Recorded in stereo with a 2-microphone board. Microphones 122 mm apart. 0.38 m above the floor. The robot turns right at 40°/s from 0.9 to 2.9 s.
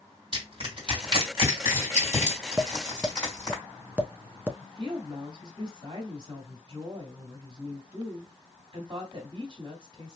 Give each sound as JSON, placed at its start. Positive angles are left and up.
{"t": 0.3, "sound": "crushing", "side_deg": -45, "distance_m": 2.0}
{"t": 2.6, "sound": "tapping", "side_deg": -25, "distance_m": 0.6}
{"t": 4.6, "sound": "a woman speaking", "side_deg": -45, "distance_m": 1.9}